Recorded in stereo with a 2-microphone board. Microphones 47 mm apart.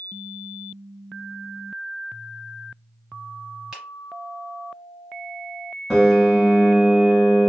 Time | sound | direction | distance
3.7 | a finger snap | 15° right (ahead or behind) | 1.5 m
5.9 | a piano | 10° right (ahead or behind) | 1.6 m